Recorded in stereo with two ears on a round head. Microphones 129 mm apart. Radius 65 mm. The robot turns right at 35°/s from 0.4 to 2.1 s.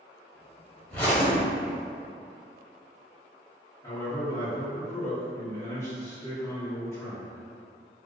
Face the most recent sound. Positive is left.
turn(degrees=20)  # may be behind; listen again after turning